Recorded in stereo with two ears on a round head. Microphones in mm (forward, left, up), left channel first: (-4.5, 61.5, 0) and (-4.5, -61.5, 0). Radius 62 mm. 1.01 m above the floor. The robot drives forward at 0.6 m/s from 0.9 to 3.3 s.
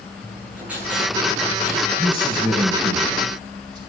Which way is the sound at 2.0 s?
35° right (ahead or behind).